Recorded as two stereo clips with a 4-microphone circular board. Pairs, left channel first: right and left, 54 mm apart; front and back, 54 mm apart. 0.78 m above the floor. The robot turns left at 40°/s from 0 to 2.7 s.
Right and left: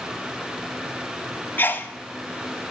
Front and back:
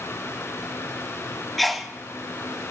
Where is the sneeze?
85° right, 0.7 m; by 1.9 s 100° right, 0.7 m.